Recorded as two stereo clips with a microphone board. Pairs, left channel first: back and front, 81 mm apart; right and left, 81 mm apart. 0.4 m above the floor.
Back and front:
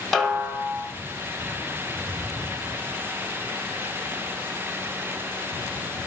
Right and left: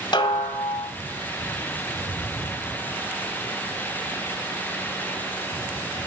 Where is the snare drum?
90° right, 1.3 m.